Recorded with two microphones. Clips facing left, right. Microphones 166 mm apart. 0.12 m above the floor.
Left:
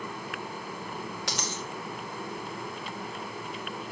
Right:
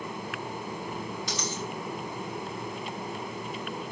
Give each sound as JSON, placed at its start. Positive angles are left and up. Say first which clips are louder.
{"t": 1.3, "sound": "a dropped coin", "louder": "right 1 dB", "side_deg": 75, "distance_m": 2.0}